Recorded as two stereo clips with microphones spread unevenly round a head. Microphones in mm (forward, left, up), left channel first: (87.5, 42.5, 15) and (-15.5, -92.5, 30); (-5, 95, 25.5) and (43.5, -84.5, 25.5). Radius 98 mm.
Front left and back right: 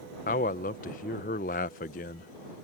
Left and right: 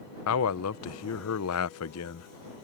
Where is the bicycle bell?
I don't hear a bicycle bell.